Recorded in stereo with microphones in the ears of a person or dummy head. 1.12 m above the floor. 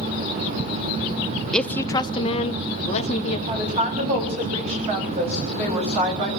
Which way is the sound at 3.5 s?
30° right (ahead or behind).